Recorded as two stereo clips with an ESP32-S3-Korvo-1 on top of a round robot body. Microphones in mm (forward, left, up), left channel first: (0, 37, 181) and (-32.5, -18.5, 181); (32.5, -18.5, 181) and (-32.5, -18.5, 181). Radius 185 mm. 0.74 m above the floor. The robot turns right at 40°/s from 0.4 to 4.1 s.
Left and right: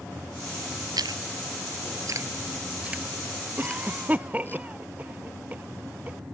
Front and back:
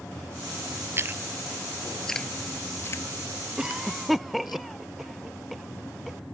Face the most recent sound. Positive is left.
turn(degrees=-90)